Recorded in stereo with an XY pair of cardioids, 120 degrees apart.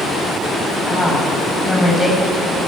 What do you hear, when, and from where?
0.9 s a woman speaking: 20° left, 9 m